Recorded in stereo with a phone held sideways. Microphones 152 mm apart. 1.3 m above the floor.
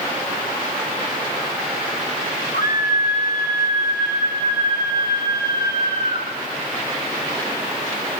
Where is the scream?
85° left, 7 m; by 6.3 s 75° left (ahead or behind), 9 m.